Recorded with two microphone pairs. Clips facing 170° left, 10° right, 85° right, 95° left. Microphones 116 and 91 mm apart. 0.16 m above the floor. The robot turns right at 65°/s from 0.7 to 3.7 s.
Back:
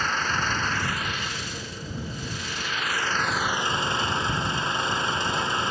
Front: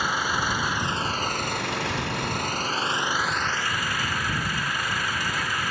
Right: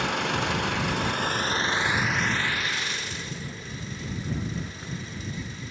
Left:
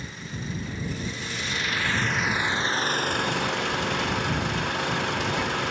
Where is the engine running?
90° right; by 5.7 s 105° left.